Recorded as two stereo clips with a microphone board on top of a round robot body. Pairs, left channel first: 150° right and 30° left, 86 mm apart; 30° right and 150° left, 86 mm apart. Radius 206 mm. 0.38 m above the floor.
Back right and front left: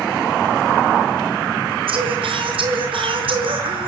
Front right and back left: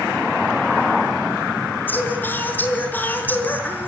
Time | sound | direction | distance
1.9 | singing | 40° left | 5.5 m